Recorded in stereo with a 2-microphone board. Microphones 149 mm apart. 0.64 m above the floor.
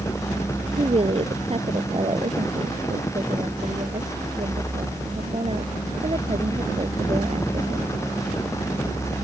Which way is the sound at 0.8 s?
40° right (ahead or behind).